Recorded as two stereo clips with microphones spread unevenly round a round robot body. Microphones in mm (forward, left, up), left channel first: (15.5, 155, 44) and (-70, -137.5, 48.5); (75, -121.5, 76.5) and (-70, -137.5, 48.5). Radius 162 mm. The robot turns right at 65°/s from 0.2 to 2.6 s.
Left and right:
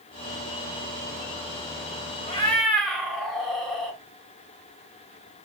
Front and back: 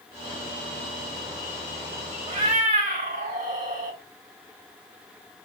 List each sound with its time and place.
2.3 s a cat meowing: 140° left, 0.8 m; by 4.0 s 160° left, 0.8 m